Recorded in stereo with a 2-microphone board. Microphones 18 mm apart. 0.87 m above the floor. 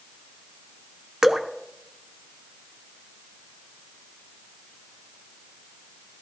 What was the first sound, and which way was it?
Dripping, 45° right (ahead or behind).